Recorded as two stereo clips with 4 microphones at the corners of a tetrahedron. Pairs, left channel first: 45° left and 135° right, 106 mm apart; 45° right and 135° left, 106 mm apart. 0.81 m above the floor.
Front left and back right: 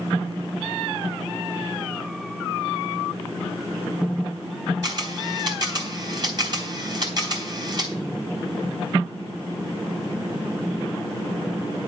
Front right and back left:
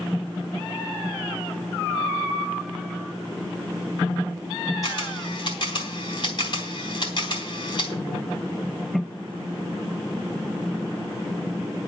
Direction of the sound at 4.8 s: 90° right.